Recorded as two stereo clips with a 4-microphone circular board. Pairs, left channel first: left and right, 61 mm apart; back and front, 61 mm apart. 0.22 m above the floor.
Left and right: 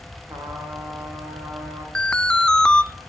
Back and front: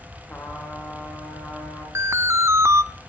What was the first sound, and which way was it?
A trumpet, 120° right.